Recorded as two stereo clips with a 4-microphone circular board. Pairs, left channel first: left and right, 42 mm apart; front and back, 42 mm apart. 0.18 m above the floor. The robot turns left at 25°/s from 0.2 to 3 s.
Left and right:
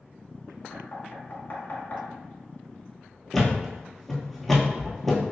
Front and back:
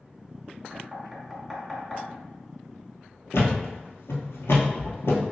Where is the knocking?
110° left, 1.3 m; by 2.0 s 75° left, 1.3 m.